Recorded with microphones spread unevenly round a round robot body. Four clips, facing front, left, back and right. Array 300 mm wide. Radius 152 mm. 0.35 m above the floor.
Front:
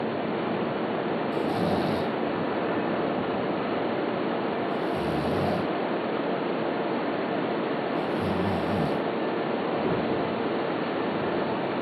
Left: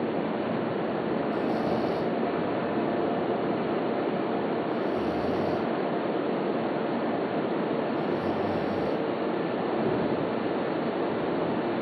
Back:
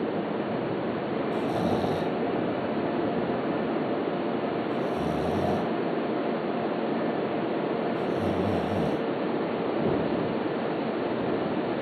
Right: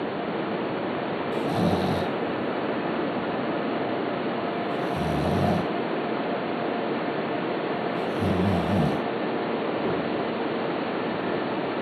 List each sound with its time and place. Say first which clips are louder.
1.3 s snoring: right 2 dB, even; 85° right